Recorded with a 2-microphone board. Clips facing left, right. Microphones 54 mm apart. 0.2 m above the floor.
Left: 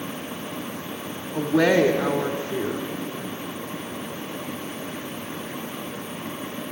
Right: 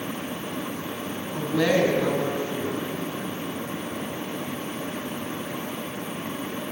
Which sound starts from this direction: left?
A woman speaking, at 1.3 s.